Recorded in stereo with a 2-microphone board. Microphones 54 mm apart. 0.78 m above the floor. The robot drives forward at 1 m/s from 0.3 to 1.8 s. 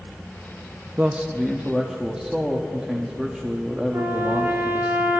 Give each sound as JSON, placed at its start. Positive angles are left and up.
{"t": 1.0, "sound": "a man speaking", "side_deg": -25, "distance_m": 0.6}
{"t": 3.9, "sound": "a trumpet", "side_deg": -45, "distance_m": 1.3}